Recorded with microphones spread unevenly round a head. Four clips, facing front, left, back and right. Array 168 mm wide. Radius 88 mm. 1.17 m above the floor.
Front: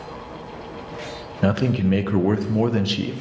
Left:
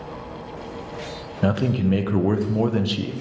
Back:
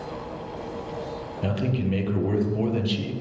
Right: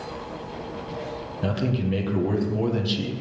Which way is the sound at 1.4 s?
25° left.